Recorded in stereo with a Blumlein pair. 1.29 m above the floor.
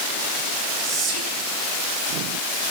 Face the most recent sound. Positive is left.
turn(degrees=-20)